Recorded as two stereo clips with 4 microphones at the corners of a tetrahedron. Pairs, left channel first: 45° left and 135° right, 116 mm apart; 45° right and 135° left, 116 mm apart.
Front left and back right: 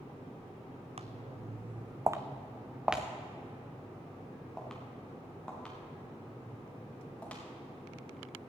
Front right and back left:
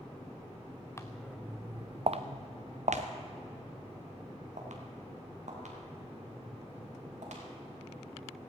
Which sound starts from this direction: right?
Footsteps, at 1.0 s.